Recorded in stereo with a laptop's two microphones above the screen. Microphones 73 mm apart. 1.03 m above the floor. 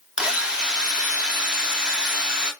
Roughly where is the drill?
Centre.